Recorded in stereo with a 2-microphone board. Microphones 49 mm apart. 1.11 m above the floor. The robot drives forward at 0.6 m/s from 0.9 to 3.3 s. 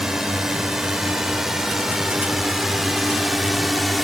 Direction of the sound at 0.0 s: 10° right (ahead or behind).